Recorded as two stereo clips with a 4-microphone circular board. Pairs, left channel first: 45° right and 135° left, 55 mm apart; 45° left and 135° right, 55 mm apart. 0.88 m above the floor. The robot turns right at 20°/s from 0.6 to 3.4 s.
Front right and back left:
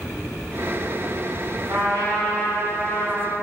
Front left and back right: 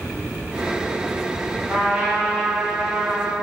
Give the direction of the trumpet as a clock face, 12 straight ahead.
7 o'clock.